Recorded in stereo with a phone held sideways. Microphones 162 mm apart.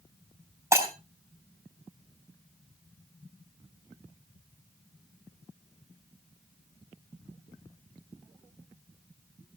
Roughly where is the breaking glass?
Centre.